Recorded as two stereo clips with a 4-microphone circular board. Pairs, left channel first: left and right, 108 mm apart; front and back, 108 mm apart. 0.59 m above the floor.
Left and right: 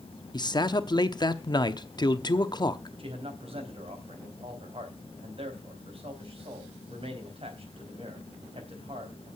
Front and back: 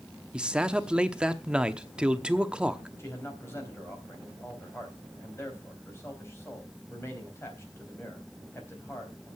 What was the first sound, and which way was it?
A man speaking, 105° left.